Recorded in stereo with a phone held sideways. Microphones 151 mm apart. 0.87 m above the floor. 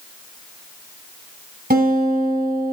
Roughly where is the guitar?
Right.